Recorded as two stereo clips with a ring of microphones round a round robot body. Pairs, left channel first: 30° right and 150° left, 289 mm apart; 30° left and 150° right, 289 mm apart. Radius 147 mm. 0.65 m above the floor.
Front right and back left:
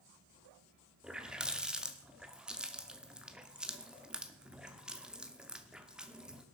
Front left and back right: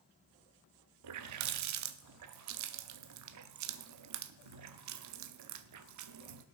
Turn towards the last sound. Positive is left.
turn(degrees=-125)